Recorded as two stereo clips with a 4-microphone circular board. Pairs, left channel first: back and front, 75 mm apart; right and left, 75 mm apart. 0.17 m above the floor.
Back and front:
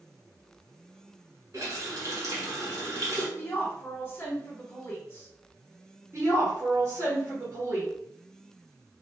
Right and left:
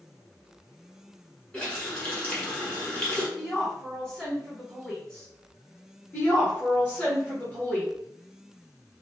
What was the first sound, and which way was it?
A running tap, 25° right.